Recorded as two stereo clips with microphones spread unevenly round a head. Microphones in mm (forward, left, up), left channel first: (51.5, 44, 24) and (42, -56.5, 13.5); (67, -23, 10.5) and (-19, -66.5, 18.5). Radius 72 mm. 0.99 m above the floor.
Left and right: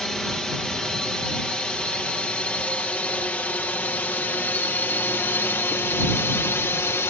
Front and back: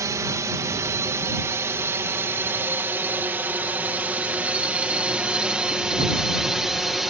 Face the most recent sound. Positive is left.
turn(degrees=120)